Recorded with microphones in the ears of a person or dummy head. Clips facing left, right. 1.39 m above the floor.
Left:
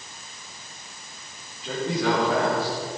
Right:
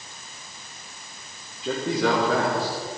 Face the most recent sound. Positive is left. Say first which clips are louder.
# right 1 dB
turn(degrees=-50)  # may be behind; listen again after turning